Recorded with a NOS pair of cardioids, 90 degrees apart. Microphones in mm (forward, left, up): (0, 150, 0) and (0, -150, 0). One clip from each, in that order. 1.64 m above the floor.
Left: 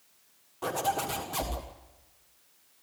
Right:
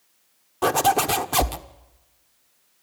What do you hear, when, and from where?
0.6 s a zipper: 70° right, 1.4 m